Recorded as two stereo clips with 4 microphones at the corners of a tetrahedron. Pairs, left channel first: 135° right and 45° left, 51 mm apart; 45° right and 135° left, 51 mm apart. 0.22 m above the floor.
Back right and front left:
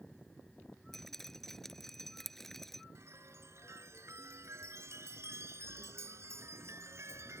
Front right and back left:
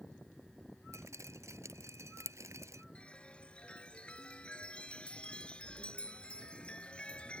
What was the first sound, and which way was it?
Dripping, 140° left.